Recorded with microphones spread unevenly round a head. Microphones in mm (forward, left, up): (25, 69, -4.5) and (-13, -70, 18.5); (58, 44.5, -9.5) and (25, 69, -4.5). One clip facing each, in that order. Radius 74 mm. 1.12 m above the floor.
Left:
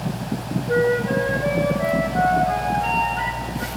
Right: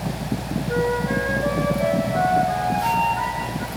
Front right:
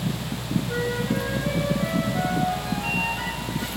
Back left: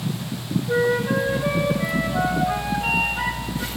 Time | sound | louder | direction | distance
0.7 | a flute | left 4 dB, back left 9 dB | 140° left | 1.8 m